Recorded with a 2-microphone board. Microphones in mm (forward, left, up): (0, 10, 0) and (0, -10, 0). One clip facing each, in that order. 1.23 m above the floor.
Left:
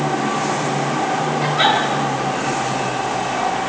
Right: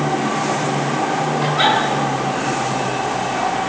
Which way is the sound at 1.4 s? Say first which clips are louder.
Even; 5° right (ahead or behind).